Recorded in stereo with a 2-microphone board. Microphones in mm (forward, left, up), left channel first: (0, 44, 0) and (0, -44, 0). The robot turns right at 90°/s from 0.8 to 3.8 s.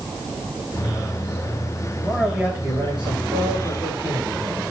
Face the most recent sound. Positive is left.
turn(degrees=-45)